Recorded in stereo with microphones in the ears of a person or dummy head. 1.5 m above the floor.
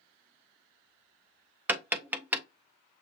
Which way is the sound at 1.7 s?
15° right (ahead or behind).